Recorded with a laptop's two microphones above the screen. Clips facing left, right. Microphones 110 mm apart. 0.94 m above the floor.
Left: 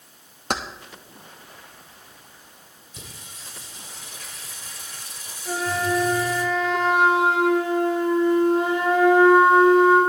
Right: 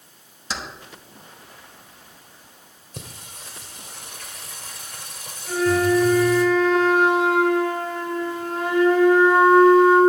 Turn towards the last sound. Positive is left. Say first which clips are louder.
# right 6 dB
turn(degrees=20)  # may be behind; listen again after turning